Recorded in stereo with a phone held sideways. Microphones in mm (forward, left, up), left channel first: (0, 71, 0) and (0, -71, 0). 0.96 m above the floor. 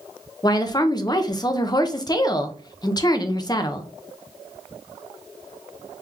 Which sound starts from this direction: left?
A woman speaking, at 0.4 s.